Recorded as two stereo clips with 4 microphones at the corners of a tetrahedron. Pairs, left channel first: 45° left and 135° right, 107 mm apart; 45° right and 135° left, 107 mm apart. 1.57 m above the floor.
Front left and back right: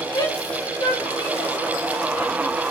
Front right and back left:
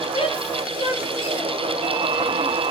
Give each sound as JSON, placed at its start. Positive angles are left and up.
{"t": 0.1, "sound": "a shout", "azimuth_deg": -5, "distance_m": 8.0}